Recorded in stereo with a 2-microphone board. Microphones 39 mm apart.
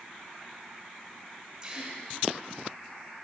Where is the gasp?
25° right (ahead or behind), 1.8 m.